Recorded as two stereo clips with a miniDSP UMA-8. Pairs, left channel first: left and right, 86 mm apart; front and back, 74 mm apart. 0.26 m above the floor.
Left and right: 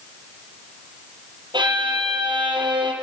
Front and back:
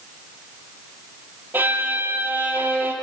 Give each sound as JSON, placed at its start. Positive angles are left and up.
{"t": 1.5, "sound": "a violin", "azimuth_deg": -120, "distance_m": 5.0}